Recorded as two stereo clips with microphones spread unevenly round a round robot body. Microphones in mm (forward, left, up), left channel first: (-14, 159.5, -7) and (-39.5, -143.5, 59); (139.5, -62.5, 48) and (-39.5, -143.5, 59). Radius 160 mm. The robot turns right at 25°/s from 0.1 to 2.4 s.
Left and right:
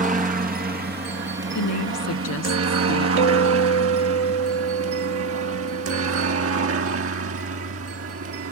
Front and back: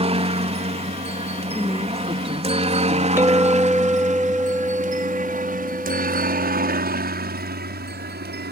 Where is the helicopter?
155° right; by 8.5 s 140° right.